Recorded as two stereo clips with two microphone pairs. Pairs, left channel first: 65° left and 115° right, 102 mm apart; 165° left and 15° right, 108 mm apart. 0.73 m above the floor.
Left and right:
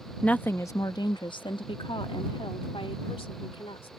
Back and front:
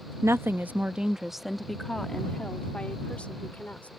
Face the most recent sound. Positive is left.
turn(degrees=90)